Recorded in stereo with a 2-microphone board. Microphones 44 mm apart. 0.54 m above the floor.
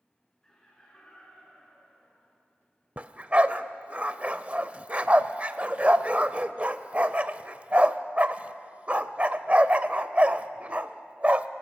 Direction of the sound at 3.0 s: 35° right (ahead or behind).